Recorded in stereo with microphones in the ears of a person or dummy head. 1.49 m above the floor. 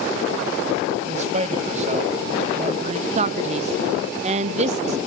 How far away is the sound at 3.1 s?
About 0.8 m.